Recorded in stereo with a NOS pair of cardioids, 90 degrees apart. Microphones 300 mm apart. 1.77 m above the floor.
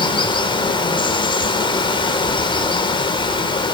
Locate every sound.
0.0 s running water: 15° left, 5 m